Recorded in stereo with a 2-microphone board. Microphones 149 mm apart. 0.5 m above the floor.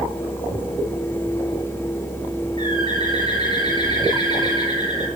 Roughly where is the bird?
Left.